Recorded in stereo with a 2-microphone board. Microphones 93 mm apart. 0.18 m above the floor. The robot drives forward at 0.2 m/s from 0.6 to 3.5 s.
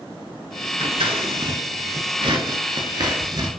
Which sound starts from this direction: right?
Scissors, at 0.8 s.